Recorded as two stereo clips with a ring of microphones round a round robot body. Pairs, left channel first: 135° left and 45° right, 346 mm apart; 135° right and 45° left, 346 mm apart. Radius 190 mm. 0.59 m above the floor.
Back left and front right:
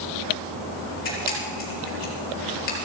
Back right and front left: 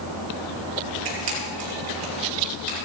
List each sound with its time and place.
1.1 s a camera shutter: 75° left, 6 m